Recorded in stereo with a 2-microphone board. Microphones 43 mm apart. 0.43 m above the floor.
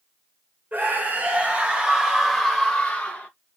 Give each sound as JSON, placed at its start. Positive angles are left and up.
{"t": 0.7, "sound": "a scream", "side_deg": -40, "distance_m": 1.3}